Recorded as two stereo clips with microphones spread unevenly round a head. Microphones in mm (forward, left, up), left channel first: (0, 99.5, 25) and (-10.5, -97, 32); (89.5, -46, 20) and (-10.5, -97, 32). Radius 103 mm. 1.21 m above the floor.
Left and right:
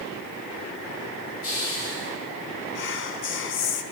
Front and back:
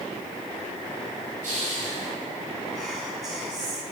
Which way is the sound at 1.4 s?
105° left.